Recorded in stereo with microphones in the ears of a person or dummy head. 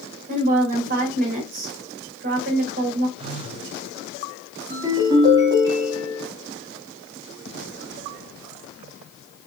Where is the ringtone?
20° right (ahead or behind), 2.5 m.